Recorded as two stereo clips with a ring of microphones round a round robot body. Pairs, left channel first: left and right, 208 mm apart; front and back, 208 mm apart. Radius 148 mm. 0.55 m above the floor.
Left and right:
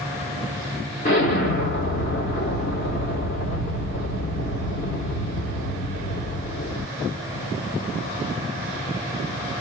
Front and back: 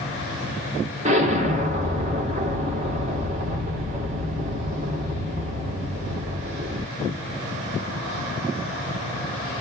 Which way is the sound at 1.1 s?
135° left.